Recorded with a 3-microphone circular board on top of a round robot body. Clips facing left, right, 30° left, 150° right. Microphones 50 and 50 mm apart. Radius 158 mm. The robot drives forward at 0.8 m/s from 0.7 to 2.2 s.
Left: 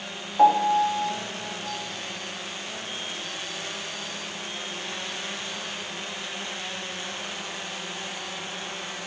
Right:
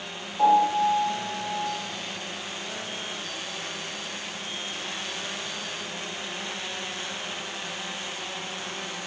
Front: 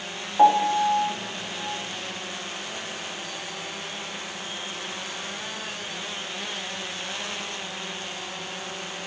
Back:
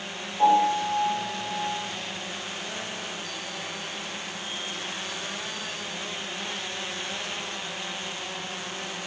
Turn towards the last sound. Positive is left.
turn(degrees=80)